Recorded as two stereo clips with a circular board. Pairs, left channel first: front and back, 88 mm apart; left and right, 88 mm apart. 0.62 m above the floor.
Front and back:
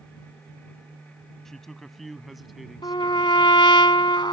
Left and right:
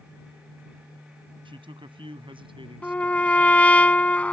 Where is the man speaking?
85° right; by 3.8 s 95° right.